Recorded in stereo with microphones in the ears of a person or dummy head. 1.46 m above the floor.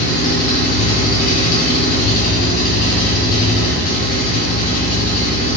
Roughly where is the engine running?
Left.